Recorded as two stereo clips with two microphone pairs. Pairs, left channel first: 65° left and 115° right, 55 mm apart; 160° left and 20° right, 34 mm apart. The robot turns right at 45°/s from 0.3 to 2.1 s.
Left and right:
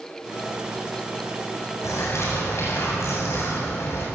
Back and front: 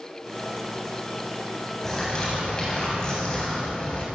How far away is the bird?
About 8 m.